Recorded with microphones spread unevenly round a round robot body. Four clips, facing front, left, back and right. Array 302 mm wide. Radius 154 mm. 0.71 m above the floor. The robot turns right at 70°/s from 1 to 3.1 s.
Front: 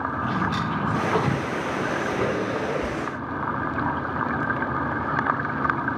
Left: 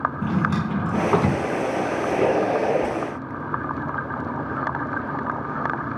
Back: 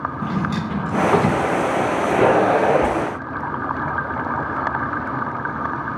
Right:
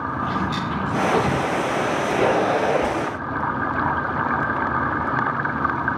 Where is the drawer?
120° left, 4 m; by 1.4 s 155° left, 4 m.